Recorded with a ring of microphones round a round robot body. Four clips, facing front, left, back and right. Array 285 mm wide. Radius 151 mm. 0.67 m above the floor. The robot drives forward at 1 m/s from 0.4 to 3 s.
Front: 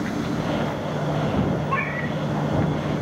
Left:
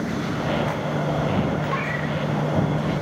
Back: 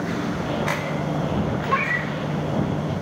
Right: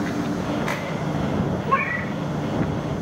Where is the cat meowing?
105° right, 4.5 m; by 2.1 s 110° right, 4.5 m.